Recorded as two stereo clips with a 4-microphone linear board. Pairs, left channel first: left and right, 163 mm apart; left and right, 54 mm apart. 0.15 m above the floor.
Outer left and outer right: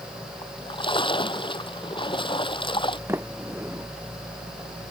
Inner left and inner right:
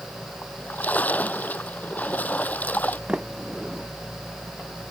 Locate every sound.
0.4 s a splash: 30° left (ahead or behind)
3.1 s a sliding door: 15° right (ahead or behind)